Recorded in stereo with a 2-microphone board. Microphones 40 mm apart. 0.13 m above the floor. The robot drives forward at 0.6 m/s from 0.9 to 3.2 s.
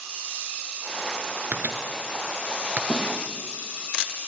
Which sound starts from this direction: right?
A microwave, at 1.5 s.